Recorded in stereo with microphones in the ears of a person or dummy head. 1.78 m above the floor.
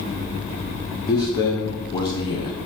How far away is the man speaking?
About 0.7 m.